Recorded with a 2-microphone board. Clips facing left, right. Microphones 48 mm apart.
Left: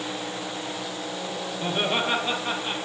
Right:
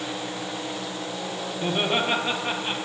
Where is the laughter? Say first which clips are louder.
Right 1 dB; 10° right (ahead or behind), 3.5 m; by 2.8 s 30° right (ahead or behind), 3.5 m.